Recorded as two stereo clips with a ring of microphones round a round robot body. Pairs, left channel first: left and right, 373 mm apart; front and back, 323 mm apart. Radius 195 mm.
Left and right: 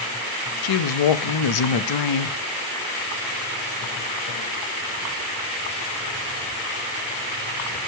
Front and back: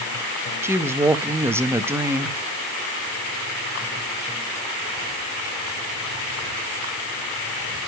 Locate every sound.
0.6 s a woman speaking: 100° left, 0.9 m